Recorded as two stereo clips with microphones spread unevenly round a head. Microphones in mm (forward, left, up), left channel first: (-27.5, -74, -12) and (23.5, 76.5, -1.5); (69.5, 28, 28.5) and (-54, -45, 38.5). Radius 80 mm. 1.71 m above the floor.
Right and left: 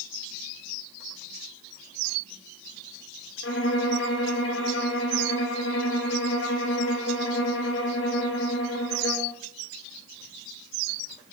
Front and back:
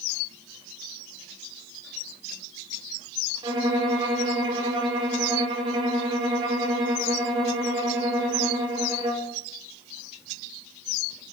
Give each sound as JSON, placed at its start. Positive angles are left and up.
{"t": 3.4, "sound": "a violin", "azimuth_deg": -90, "distance_m": 2.5}